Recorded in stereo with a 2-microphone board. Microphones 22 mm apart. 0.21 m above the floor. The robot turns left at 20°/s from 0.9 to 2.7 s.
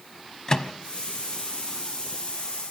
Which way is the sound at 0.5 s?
30° left (ahead or behind).